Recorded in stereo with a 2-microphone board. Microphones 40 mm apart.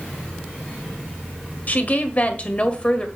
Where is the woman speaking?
45° left (ahead or behind), 1.5 m; by 3.1 s 25° left (ahead or behind), 1.6 m.